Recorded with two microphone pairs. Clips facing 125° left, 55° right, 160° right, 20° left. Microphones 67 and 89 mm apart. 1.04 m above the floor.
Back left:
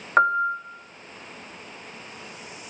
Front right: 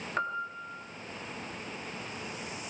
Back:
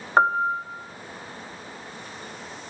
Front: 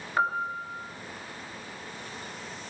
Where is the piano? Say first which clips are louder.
Back left 14 dB, back 8 dB; 165° left, 1.4 m.